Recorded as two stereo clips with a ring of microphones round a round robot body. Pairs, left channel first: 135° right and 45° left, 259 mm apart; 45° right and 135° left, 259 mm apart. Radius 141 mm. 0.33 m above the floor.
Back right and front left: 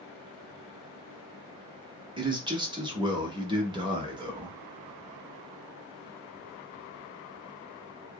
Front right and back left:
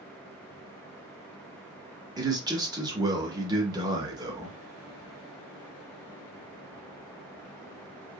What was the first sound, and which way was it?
A man speaking, 85° left.